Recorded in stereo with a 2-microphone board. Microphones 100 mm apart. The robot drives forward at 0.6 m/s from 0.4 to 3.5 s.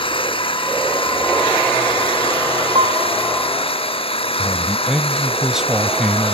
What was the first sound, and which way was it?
An engine running, 60° left (ahead or behind).